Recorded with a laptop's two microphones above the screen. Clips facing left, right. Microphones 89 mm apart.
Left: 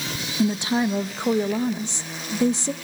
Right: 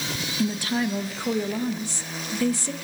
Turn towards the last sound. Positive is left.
turn(degrees=25)  # may be behind; listen again after turning